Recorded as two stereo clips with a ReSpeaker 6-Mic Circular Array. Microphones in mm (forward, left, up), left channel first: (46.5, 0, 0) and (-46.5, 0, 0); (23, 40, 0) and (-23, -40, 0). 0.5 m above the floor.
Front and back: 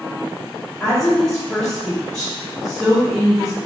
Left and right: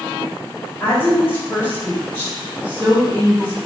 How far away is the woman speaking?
About 1.3 m.